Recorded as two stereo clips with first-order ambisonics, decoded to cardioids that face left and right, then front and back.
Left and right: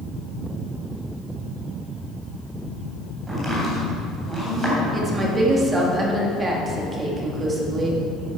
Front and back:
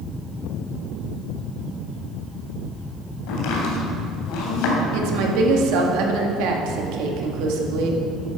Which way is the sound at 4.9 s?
160° right.